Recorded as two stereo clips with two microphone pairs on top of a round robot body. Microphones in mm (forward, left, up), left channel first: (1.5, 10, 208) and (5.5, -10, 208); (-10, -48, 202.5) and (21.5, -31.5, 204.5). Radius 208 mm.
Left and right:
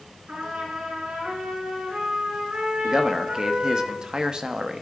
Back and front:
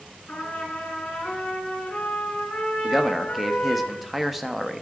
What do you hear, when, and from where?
0.3 s a trumpet: 95° right, 5 m
2.8 s a man speaking: 60° right, 1.0 m